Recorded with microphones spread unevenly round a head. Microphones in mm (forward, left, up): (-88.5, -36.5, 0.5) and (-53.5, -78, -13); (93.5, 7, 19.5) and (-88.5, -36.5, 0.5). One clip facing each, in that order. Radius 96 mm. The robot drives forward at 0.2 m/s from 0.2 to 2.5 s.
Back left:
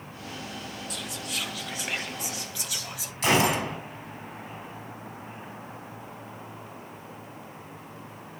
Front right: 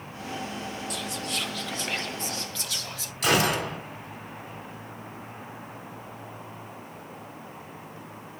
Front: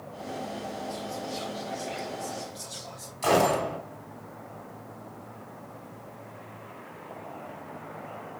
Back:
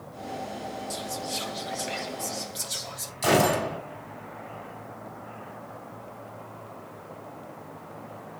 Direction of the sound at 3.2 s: 125° left.